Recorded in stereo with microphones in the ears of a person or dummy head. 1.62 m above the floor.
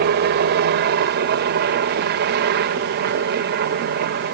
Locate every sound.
0.0 s a helicopter: 55° right (ahead or behind)